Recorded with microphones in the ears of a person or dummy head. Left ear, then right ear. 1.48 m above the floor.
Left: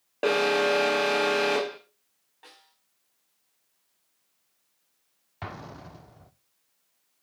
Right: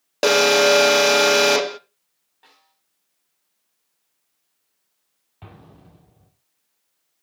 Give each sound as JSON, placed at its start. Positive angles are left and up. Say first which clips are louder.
{"t": 0.2, "sound": "an alarm", "louder": "right 8 dB", "side_deg": -75, "distance_m": 0.6}
{"t": 2.4, "sound": "a snare drum", "louder": "left 3 dB", "side_deg": 15, "distance_m": 4.0}
{"t": 5.4, "sound": "an explosion", "louder": "left 8 dB", "side_deg": 60, "distance_m": 0.8}